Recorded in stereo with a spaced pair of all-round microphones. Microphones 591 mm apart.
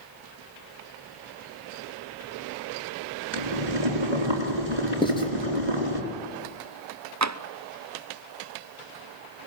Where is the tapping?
30° right (ahead or behind), 0.5 m.